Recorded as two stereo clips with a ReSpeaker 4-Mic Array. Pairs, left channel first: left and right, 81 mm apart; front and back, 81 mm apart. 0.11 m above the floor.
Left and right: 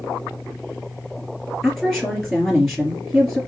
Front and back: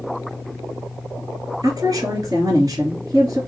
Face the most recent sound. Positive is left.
turn(degrees=170)